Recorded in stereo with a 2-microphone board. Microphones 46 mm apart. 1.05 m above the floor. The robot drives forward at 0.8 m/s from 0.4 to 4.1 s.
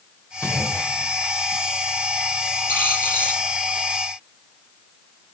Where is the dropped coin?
45° left (ahead or behind), 9 m.